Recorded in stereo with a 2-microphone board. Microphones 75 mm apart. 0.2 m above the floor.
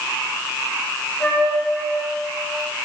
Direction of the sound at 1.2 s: 20° left (ahead or behind).